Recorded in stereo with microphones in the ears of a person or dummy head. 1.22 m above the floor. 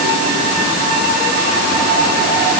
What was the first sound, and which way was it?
Only background noise.